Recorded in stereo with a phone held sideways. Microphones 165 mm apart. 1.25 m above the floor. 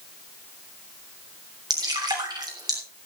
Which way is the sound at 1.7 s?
25° right (ahead or behind).